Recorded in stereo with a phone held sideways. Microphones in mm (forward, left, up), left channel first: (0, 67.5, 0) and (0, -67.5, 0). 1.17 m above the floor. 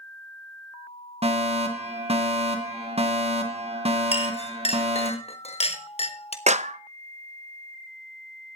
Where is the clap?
60° right (ahead or behind), 0.7 m.